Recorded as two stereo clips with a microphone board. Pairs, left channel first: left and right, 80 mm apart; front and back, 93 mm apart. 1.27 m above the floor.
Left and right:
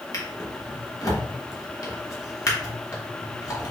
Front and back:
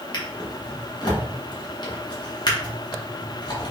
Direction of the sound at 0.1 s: 40° left.